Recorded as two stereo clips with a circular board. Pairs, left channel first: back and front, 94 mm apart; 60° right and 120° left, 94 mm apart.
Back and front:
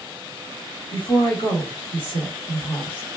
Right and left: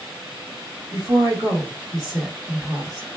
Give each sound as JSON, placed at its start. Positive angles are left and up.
{"t": 0.9, "sound": "a woman speaking", "azimuth_deg": 165, "distance_m": 1.9}